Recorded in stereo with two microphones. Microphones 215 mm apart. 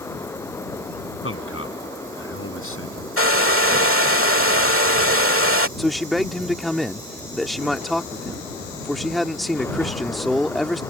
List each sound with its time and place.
1.2 s a man speaking: 80° left
3.2 s a hair dryer: 85° right
5.8 s a man speaking: centre (ahead or behind)